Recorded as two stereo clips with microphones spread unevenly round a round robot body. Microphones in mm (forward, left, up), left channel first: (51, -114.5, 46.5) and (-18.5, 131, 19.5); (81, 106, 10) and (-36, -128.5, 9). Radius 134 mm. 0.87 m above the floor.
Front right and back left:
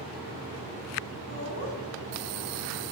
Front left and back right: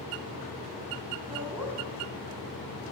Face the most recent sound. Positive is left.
turn(degrees=-35)